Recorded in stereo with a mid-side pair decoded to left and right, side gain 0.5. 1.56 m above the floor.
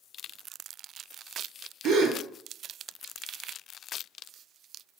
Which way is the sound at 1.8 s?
65° right.